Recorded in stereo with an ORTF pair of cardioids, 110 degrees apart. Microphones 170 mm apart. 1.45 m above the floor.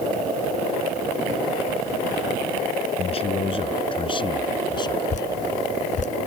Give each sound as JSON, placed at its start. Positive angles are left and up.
{"t": 3.0, "sound": "a man speaking", "azimuth_deg": 35}
{"t": 5.1, "sound": "dripping", "azimuth_deg": 45}